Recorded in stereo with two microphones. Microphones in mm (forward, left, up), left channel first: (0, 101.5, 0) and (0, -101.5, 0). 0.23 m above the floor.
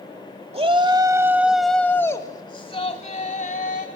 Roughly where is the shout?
Right.